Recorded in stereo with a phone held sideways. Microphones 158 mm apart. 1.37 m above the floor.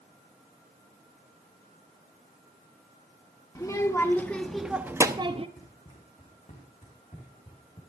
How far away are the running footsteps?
About 4 m.